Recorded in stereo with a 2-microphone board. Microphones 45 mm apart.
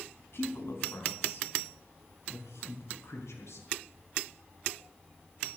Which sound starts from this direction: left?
A woman speaking, at 0.3 s.